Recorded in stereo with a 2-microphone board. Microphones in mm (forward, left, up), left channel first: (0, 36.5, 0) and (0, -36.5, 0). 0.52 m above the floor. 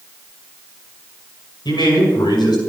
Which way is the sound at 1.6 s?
80° left.